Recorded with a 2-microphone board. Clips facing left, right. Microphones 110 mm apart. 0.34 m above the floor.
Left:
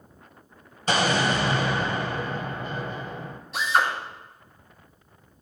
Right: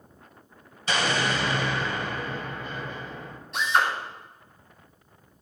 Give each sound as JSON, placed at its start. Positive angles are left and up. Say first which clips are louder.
{"t": 0.9, "sound": "an explosion", "louder": "left 3 dB", "side_deg": 40, "distance_m": 1.4}
{"t": 3.5, "sound": "a drill", "louder": "left 1 dB", "side_deg": 0, "distance_m": 2.5}